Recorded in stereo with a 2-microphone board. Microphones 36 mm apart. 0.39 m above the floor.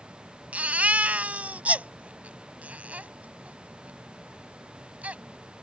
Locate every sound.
0.5 s a baby crying: 45° right (ahead or behind)